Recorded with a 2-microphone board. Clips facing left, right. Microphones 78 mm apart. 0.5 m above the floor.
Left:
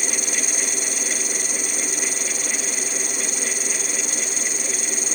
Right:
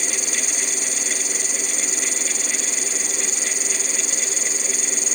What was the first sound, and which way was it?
An insect, 60° left (ahead or behind).